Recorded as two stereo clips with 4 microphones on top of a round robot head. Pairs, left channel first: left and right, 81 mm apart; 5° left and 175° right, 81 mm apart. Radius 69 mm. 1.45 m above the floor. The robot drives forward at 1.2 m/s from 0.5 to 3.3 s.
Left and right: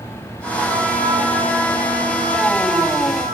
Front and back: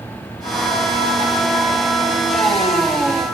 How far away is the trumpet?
About 6.5 m.